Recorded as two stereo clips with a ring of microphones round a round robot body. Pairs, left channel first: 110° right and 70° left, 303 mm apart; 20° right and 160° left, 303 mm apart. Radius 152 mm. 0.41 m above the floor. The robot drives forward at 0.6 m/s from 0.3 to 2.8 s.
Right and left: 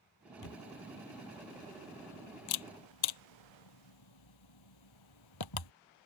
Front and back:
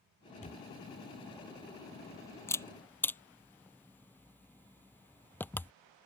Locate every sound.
0.4 s a camera shutter: 90° right; by 5.7 s 105° right